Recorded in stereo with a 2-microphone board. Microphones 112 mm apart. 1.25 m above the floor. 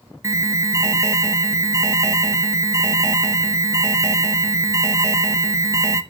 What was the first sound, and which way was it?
An alarm, 25° right (ahead or behind).